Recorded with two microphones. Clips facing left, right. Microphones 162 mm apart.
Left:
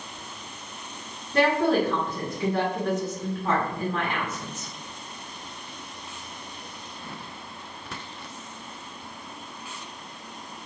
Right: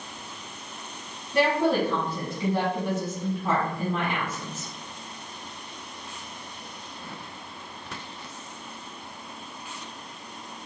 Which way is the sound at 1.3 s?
10° right (ahead or behind).